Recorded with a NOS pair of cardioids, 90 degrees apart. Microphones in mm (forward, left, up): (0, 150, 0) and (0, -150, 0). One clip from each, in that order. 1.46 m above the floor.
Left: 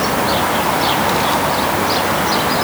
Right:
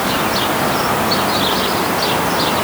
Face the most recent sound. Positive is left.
No sound to turn to.